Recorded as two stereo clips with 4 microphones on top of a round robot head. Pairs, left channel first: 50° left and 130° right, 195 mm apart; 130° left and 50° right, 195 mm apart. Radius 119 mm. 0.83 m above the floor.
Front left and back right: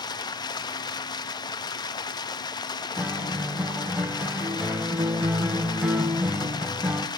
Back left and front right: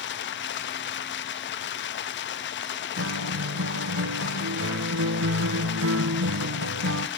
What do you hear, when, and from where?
0.0 s running water: 115° left, 0.9 m
3.0 s a guitar: 45° right, 0.8 m